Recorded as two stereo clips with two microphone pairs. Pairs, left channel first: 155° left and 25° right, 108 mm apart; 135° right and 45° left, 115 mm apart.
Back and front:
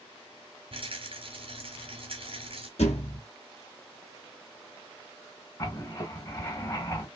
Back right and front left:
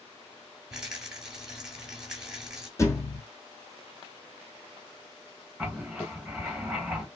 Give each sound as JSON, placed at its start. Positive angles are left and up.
{"t": 0.7, "sound": "a rattle", "azimuth_deg": -40, "distance_m": 2.5}
{"t": 2.8, "sound": "a thud", "azimuth_deg": 160, "distance_m": 1.6}
{"t": 5.6, "sound": "writing", "azimuth_deg": 125, "distance_m": 1.6}